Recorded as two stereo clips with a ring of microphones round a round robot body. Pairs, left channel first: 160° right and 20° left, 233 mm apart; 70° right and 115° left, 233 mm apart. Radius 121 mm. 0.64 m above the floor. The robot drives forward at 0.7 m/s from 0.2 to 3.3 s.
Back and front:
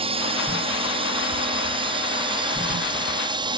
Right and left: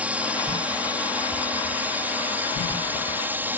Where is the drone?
35° left; by 3.6 s 45° left.